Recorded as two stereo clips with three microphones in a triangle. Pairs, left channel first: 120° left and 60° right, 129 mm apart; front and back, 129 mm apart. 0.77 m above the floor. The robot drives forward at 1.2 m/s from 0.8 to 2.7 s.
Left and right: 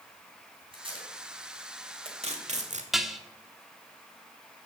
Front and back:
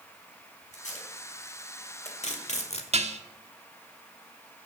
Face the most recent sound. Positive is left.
turn(degrees=-150)